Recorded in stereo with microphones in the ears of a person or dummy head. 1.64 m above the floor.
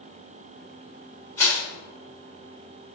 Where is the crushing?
15° left (ahead or behind), 1.5 m.